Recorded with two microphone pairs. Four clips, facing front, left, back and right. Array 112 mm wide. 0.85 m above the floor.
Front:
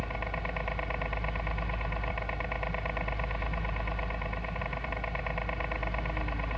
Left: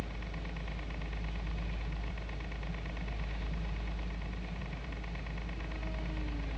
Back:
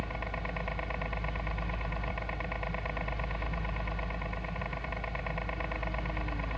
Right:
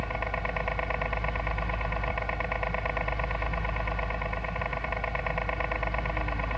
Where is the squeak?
I don't hear a squeak.